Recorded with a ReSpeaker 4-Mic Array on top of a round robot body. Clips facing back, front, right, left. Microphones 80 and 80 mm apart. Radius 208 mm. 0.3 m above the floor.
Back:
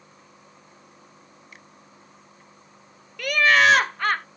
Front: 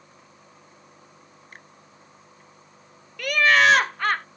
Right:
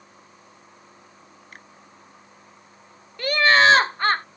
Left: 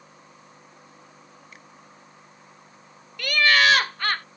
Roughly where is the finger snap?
Ahead right.